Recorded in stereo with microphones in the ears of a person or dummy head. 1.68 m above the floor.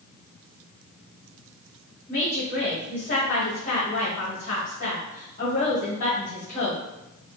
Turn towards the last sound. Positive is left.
turn(degrees=45)  # may be behind; listen again after turning